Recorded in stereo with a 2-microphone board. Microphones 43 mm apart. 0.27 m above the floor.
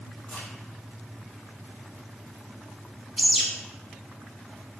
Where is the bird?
Centre (ahead or behind), 1.0 m.